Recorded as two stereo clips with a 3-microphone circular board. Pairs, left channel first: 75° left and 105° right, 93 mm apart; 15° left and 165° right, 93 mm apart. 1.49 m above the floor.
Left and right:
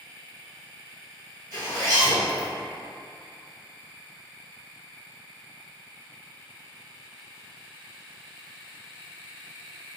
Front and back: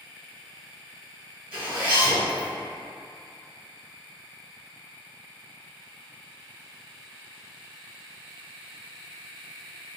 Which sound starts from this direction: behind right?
A zipper, at 1.5 s.